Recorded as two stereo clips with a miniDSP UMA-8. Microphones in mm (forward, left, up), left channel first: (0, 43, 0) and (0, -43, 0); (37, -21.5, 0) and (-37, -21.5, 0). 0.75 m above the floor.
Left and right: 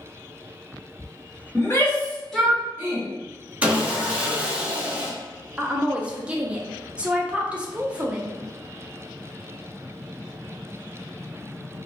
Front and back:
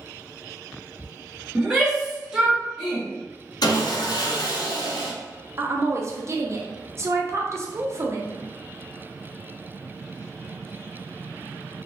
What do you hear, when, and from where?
1.6 s a shout: 105° left, 1.1 m; by 3.0 s 95° right, 1.0 m
3.6 s sawing: 15° right, 0.7 m
5.6 s a woman speaking: 160° right, 0.5 m